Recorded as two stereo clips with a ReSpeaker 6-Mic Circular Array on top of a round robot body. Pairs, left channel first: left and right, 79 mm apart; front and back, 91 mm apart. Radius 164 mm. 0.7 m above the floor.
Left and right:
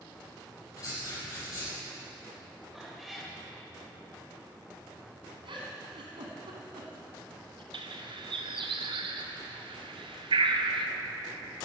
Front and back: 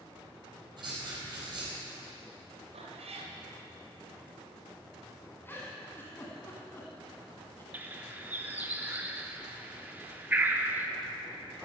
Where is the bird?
105° right, 0.9 m.